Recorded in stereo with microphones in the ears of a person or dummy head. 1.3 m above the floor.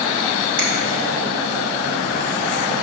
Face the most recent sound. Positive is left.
turn(degrees=-25)  # may be behind; listen again after turning